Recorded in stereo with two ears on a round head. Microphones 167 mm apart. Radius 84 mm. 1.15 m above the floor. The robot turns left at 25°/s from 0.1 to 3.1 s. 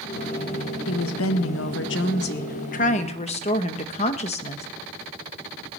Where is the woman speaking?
90° left, 0.8 m; by 4.7 s 35° left, 0.8 m.